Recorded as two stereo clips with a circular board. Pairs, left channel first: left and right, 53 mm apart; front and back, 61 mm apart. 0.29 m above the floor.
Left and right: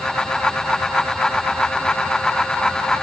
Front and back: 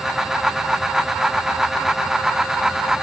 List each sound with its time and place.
Only background noise.